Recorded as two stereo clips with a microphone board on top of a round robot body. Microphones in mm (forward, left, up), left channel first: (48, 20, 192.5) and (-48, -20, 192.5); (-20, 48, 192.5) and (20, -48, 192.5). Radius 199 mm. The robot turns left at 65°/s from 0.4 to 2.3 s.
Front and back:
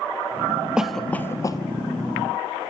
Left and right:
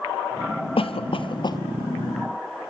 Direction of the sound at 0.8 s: 120° left.